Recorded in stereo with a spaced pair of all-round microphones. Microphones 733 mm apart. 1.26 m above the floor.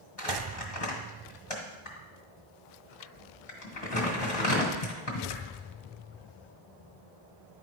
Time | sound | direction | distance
0.2 | crumpling | 45° left (ahead or behind) | 1.7 m